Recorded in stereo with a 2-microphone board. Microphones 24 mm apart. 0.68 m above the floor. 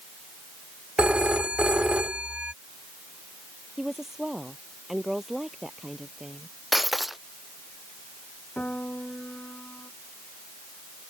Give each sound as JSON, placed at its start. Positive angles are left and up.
{"t": 1.0, "sound": "a phone ringing", "side_deg": -50}
{"t": 3.8, "sound": "a woman speaking", "side_deg": -10}
{"t": 6.7, "sound": "breaking glass", "side_deg": -5}
{"t": 8.6, "sound": "a piano", "side_deg": 85}